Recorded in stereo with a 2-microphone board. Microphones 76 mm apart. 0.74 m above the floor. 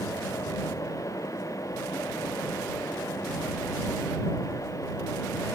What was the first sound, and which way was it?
Only background noise.